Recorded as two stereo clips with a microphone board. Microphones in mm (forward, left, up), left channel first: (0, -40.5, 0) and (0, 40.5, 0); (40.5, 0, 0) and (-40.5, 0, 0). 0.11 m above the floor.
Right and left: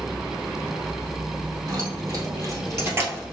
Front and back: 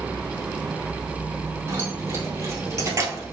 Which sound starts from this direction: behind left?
Keys jangling, at 1.7 s.